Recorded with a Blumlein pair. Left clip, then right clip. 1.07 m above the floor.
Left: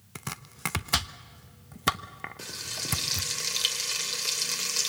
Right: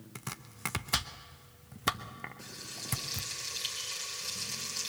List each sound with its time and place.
0.1 s chopping: 10° left, 0.7 m
2.4 s frying: 30° left, 3 m